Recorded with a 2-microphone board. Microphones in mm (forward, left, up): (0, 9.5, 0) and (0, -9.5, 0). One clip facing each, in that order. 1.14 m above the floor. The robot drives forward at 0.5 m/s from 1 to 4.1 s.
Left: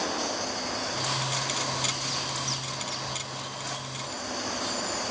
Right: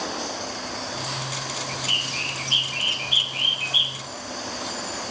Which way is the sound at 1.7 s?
75° right (ahead or behind).